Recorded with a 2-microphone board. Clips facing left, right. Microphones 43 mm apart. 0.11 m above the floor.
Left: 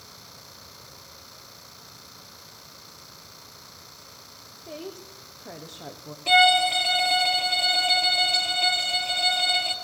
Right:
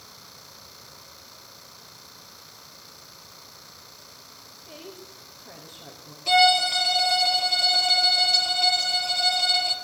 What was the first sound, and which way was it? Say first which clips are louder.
A woman speaking: left 5 dB; 70° left (ahead or behind).